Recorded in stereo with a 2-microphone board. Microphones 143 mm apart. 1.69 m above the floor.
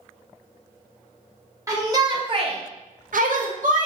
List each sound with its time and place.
1.7 s a shout: 20° right (ahead or behind), 0.9 m; by 3.9 s 60° right (ahead or behind), 0.7 m